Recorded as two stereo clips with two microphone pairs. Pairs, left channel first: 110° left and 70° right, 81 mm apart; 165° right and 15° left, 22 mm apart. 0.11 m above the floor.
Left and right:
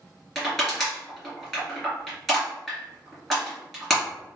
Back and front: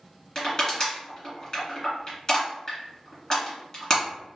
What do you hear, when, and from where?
0.3 s crushing: 155° right, 1.7 m